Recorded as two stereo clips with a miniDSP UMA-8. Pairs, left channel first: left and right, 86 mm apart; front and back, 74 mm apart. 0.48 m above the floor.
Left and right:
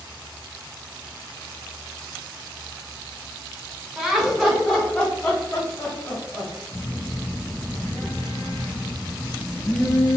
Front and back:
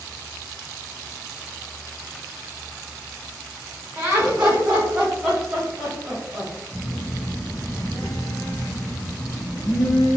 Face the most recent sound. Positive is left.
turn(degrees=35)